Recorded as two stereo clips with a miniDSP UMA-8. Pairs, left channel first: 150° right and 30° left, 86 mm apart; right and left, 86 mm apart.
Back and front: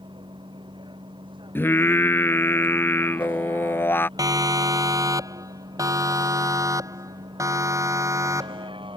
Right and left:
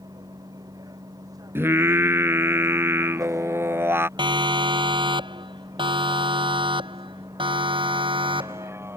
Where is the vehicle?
50° left; by 9.0 s 30° left.